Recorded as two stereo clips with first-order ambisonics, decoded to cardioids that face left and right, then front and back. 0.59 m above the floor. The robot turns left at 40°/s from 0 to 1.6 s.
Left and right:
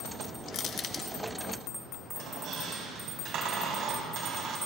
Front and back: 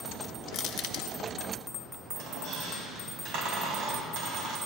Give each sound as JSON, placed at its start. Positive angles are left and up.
{"t": 0.5, "sound": "crushing", "azimuth_deg": 50, "distance_m": 0.7}
{"t": 2.1, "sound": "a squeak", "azimuth_deg": -135, "distance_m": 2.5}